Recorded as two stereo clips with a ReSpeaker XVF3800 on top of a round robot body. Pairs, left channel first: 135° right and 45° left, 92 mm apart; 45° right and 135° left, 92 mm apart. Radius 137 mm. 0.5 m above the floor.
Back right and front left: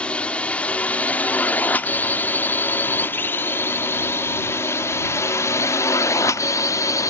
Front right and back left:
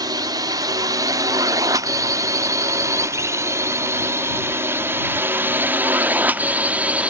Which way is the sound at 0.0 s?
150° left.